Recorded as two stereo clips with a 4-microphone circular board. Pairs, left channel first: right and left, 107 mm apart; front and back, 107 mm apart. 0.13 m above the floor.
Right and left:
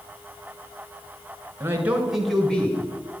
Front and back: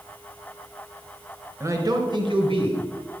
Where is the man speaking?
135° left, 1.5 m; by 2.9 s 165° right, 2.5 m.